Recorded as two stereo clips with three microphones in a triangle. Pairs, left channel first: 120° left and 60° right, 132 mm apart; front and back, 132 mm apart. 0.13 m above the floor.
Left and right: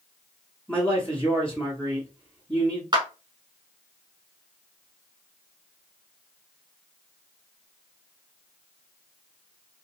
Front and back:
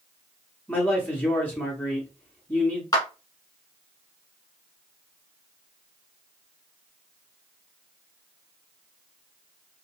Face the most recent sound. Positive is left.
turn(degrees=-35)